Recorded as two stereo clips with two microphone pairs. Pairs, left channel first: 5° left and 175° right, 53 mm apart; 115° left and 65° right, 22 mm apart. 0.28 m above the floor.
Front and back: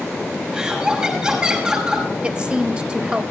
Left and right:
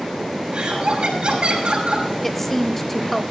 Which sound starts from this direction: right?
Laughter, at 0.5 s.